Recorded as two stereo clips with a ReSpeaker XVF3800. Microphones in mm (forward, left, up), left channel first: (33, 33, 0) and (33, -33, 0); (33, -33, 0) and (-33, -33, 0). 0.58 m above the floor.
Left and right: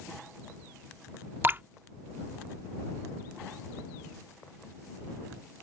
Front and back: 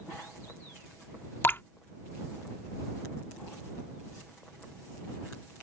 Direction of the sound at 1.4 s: 40° right.